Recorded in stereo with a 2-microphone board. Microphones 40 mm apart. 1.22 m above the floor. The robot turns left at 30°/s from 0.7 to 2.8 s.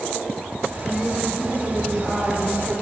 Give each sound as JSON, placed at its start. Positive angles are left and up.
{"t": 0.8, "sound": "a woman speaking", "azimuth_deg": 25, "distance_m": 2.5}